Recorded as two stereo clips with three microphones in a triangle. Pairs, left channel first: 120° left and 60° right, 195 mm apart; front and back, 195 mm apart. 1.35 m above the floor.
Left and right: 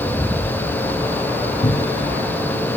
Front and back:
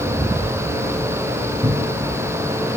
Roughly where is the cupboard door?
Behind left.